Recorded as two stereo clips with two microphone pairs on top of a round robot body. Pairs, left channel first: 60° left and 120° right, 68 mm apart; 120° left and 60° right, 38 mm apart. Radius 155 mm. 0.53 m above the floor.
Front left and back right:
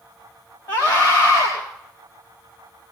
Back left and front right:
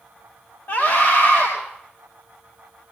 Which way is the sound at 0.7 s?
115° left.